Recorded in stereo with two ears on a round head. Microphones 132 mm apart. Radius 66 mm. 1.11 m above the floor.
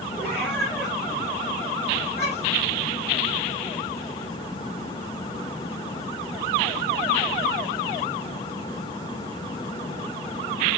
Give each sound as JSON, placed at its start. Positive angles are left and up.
{"t": 0.2, "sound": "a cat meowing", "side_deg": 15, "distance_m": 5.0}